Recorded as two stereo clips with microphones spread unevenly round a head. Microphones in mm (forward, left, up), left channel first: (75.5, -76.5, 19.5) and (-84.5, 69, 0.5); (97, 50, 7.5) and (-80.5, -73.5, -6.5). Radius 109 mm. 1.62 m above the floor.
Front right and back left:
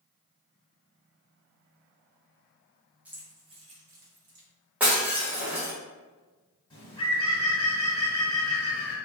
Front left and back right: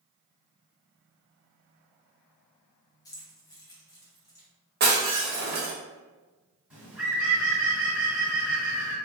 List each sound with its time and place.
3.0 s keys jangling: 50° left, 0.7 m; by 4.5 s 105° left, 1.1 m
4.8 s breaking glass: 135° right, 1.0 m
6.7 s a bird: 60° right, 1.6 m